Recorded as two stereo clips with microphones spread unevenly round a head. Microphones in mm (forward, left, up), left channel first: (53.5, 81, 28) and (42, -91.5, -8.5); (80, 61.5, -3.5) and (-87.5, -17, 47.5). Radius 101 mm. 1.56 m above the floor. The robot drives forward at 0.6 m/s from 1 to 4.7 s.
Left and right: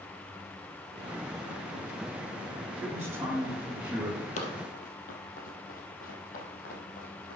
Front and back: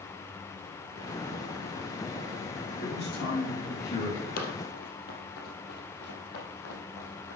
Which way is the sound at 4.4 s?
70° left.